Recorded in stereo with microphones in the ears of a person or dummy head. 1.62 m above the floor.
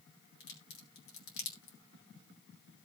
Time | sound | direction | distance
0.4 | a crack | 70° left (ahead or behind) | 4 m